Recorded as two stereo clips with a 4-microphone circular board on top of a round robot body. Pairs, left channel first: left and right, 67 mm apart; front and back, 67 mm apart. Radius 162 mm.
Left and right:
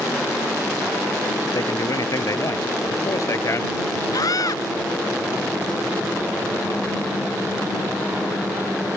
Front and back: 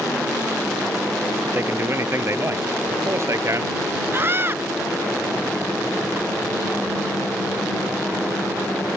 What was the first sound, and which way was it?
A man speaking, 125° left.